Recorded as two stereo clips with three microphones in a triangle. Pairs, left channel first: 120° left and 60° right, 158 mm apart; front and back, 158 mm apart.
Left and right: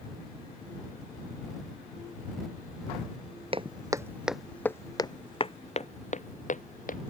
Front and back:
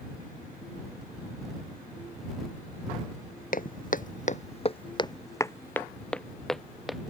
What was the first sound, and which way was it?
Footsteps, 10° right.